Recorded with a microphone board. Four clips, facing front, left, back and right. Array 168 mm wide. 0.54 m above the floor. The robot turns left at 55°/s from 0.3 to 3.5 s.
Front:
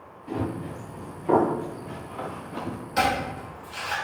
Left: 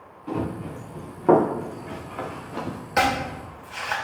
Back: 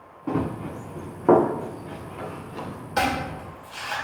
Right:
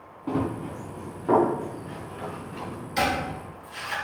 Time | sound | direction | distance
0.3 | running footsteps | 150° right | 3 m
3.0 | chopping | 120° left | 2.5 m